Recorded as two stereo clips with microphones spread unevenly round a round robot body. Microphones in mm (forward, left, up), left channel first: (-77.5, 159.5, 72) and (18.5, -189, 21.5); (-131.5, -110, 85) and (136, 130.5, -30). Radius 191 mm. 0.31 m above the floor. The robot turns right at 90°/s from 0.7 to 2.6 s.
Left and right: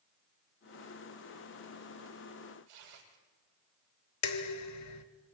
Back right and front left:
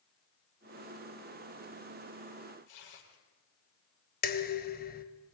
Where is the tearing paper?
95° right, 7.5 m.